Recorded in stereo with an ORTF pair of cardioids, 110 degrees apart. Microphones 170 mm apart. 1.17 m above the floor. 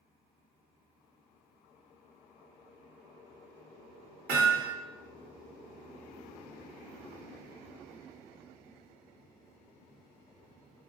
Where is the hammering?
60° right, 1.4 m.